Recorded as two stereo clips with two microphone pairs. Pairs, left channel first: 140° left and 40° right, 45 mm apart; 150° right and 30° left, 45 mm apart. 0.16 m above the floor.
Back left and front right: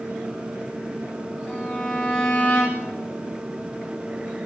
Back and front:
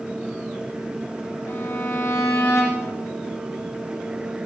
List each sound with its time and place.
1.5 s a violin: 150° right, 5.5 m